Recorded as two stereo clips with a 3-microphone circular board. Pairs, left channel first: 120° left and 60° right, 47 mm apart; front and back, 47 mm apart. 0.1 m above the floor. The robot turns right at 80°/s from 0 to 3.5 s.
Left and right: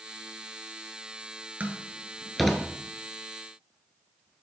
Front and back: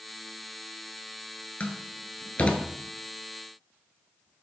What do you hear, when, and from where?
1.6 s a door slam: 35° right, 0.9 m; by 2.6 s 50° left, 0.9 m